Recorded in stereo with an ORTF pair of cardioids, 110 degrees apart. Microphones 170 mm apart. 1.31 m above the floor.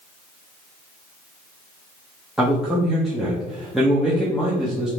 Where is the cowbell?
I don't hear a cowbell.